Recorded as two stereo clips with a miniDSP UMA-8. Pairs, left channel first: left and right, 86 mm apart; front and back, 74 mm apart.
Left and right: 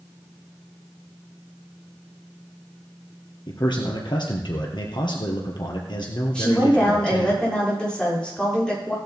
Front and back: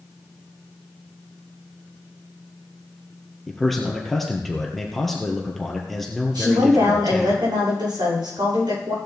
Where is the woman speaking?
170° left, 7 m.